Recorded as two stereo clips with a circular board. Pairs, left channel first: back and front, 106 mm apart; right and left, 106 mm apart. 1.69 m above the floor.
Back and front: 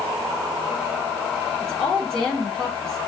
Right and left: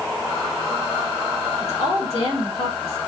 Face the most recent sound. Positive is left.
turn(degrees=-100)